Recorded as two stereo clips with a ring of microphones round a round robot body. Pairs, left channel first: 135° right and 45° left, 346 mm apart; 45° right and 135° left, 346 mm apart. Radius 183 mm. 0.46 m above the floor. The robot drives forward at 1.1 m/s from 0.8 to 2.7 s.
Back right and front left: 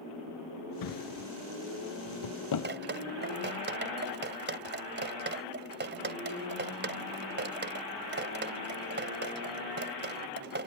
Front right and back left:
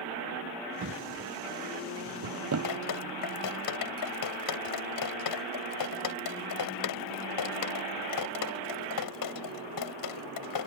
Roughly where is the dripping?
Ahead.